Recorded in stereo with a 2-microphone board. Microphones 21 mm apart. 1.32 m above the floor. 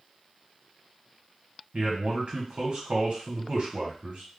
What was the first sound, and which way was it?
A man speaking, 60° right (ahead or behind).